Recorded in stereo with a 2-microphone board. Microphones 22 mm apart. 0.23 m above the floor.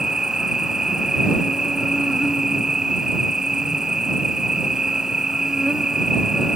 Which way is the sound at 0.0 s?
35° right (ahead or behind).